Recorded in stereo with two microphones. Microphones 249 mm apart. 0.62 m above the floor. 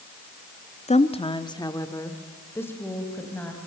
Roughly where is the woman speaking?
Left.